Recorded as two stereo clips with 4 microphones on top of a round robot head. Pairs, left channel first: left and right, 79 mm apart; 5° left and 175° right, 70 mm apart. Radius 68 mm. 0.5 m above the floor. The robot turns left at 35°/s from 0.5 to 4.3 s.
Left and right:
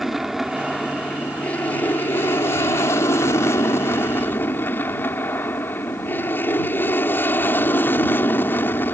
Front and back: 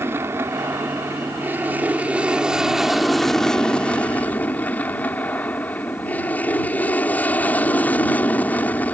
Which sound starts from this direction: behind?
An aircraft, at 0.0 s.